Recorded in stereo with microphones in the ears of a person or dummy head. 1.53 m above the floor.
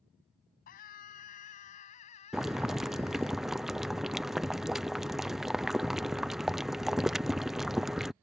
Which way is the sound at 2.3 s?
5° right (ahead or behind).